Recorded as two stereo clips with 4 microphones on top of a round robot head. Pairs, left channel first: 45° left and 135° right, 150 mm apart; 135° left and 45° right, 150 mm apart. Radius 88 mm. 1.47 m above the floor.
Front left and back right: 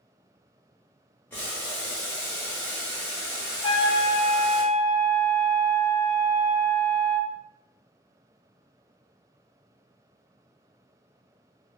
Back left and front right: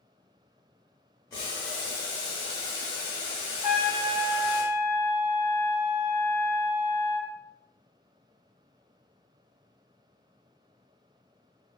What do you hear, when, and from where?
1.3 s boiling: 110° left, 0.9 m
3.6 s a trumpet: 10° left, 1.3 m